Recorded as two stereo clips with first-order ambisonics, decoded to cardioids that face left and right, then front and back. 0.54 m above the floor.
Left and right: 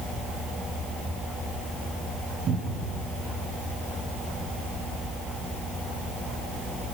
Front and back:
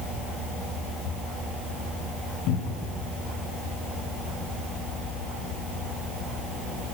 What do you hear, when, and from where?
2.5 s a cupboard door: 30° right, 3.5 m